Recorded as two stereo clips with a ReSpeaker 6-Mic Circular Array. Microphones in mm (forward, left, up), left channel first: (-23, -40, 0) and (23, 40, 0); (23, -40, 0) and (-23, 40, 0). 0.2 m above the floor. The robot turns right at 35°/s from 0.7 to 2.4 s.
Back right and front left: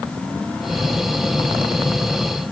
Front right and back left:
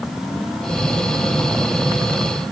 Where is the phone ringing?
No phone ringing in this recording.